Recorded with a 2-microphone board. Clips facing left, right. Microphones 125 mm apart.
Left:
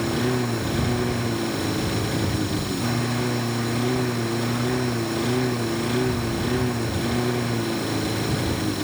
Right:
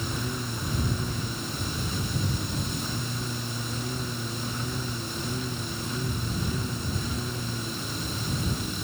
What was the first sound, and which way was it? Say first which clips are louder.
A lawn mower: left 10 dB; 80° left.